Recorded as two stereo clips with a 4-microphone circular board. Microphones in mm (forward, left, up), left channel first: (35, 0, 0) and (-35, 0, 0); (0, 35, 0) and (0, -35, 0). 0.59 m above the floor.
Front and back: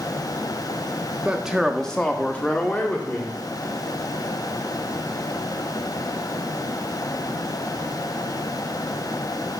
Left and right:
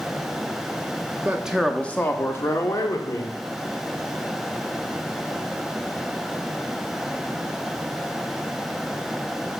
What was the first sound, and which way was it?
A man speaking, 120° right.